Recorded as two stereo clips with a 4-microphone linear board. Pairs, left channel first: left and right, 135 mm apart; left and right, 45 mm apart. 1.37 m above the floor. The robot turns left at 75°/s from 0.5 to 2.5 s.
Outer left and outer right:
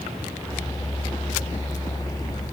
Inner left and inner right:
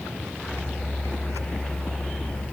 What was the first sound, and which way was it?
Only background noise.